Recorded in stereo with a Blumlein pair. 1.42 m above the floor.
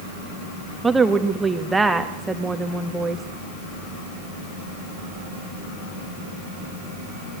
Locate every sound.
0.8 s a woman speaking: 10° right, 1.6 m